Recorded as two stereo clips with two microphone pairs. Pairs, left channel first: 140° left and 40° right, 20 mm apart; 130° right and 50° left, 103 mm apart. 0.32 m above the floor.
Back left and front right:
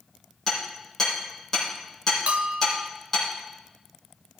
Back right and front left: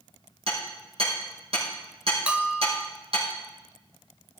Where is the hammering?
65° left, 7 m.